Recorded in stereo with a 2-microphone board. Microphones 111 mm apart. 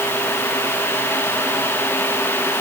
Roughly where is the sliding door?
I don't hear a sliding door.